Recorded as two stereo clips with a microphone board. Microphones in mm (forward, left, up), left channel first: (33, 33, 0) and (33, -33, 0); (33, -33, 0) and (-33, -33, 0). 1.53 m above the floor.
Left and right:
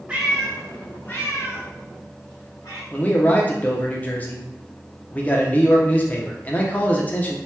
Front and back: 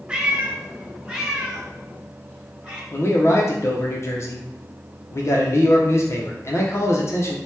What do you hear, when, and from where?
0.1 s a cat meowing: 130° right, 0.7 m; by 2.8 s 95° left, 1.6 m
2.9 s a man speaking: 30° left, 0.7 m